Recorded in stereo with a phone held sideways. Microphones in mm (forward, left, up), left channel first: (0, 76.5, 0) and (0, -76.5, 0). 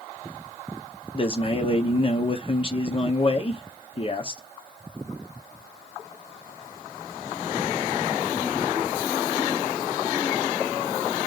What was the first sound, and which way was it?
A man speaking, 35° left (ahead or behind).